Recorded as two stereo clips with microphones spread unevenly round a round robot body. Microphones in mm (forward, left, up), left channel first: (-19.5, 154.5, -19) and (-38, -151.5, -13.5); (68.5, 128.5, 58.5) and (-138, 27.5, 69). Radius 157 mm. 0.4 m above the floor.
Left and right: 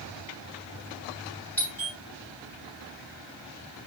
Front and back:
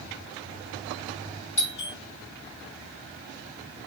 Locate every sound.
1.6 s a doorbell: straight ahead, 4.5 m